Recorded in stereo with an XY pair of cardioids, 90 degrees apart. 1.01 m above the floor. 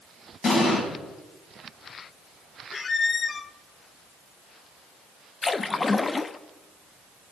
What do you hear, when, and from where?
0.4 s an explosion: 55° left, 7.5 m
2.7 s a squeak: 40° left, 0.6 m
5.4 s a splash: 35° left, 0.6 m